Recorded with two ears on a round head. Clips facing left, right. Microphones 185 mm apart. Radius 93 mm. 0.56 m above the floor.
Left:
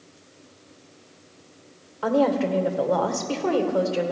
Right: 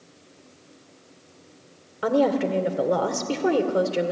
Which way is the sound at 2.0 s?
20° right (ahead or behind).